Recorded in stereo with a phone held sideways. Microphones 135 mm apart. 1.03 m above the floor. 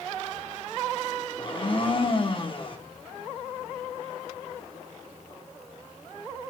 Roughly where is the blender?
Left.